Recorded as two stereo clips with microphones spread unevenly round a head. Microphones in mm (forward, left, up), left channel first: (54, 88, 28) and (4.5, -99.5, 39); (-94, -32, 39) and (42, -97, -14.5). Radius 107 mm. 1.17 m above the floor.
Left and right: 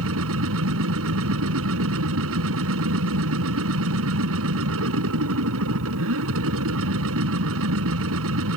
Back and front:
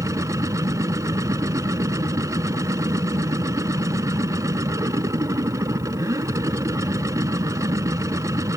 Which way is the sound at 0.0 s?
95° right.